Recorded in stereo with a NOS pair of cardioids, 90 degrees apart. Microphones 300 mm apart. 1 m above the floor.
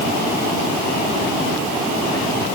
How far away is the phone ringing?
I don't hear a phone ringing.